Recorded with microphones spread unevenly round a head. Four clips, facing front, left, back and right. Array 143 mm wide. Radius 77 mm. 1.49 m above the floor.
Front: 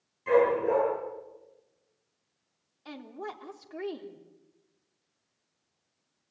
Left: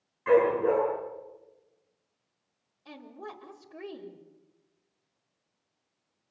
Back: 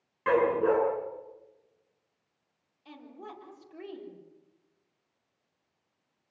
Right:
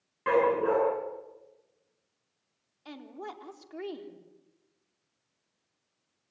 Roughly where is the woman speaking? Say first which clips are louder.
Right 2 dB, front 6 dB; ahead right.